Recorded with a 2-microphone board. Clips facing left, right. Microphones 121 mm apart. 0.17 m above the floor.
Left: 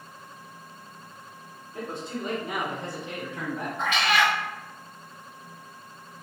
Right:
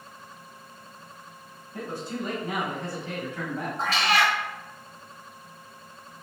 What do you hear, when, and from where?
1.7 s a man speaking: 20° left (ahead or behind), 1.8 m; by 3.7 s 15° left (ahead or behind), 1.2 m
3.8 s a cat meowing: 35° right (ahead or behind), 0.6 m